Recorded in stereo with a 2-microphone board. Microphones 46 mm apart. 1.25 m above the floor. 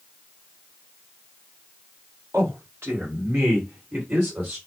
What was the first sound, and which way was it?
A man speaking, 70° right (ahead or behind).